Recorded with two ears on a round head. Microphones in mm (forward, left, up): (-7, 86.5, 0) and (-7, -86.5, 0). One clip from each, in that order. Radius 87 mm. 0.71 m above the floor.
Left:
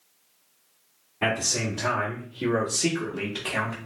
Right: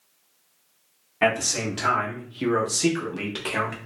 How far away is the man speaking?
About 1.7 m.